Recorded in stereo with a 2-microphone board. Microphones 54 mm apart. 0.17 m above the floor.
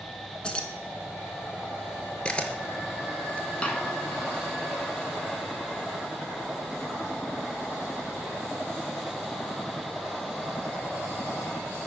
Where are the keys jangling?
15° left (ahead or behind), 1.3 m.